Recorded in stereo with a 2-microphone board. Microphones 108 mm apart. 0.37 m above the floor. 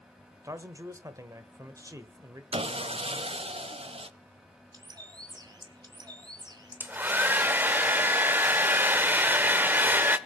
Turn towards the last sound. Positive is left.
turn(degrees=-15)  # may be behind; listen again after turning